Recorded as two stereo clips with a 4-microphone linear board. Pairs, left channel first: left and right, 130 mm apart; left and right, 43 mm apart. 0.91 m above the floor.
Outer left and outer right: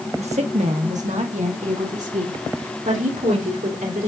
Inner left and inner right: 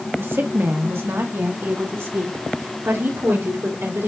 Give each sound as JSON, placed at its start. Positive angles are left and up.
{"t": 0.2, "sound": "a woman speaking", "side_deg": -55, "distance_m": 1.4}